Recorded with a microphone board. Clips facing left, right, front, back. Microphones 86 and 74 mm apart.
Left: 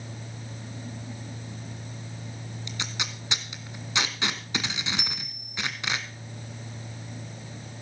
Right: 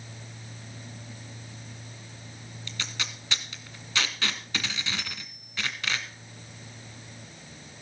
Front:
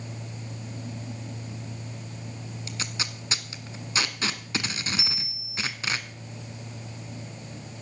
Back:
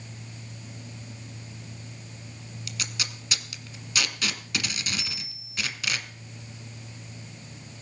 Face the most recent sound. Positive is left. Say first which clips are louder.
# left 2 dB, front 2 dB
turn(degrees=75)